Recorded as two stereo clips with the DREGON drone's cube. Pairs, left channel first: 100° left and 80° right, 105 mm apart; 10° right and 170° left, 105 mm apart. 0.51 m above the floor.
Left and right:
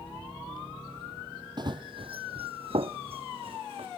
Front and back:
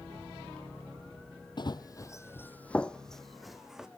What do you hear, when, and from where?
1.6 s running footsteps: 40° right, 0.8 m; by 3.9 s 105° right, 1.6 m